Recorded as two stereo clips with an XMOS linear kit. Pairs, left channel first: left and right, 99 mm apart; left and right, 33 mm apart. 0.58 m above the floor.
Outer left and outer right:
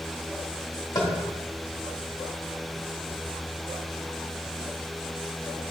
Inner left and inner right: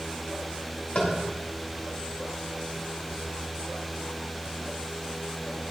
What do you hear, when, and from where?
0.9 s tapping: 40° left (ahead or behind), 1.5 m